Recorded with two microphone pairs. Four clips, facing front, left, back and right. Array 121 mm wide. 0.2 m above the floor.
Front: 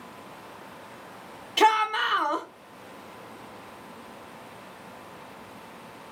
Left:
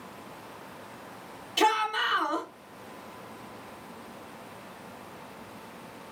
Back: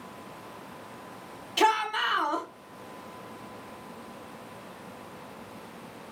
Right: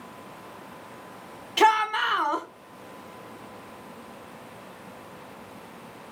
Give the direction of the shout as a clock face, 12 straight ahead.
2 o'clock.